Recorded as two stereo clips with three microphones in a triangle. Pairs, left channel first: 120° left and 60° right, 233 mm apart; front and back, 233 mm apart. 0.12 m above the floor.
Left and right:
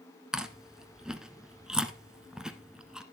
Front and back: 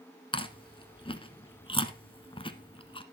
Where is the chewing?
25° left, 1.0 m.